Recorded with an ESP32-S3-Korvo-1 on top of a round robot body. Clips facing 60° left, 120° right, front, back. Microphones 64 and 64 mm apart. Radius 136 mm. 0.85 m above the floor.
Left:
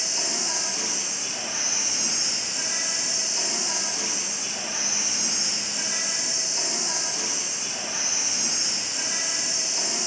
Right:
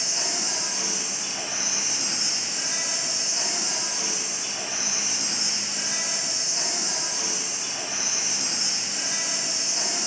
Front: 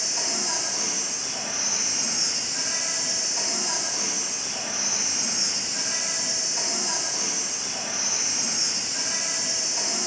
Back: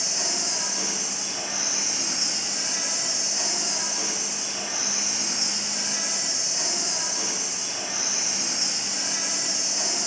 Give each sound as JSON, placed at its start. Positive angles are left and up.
{"t": 0.0, "sound": "an insect", "azimuth_deg": -20, "distance_m": 1.8}